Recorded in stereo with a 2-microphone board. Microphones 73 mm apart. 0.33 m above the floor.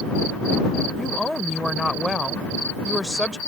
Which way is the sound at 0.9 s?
Centre (ahead or behind).